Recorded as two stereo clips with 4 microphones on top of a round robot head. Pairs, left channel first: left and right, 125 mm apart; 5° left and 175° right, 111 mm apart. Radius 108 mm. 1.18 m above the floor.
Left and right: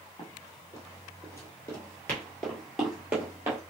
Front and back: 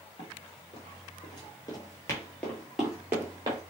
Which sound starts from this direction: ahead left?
Running footsteps, at 0.2 s.